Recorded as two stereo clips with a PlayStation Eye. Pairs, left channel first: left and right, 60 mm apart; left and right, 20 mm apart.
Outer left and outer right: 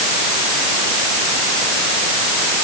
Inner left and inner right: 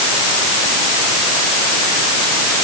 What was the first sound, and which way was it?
Only background noise.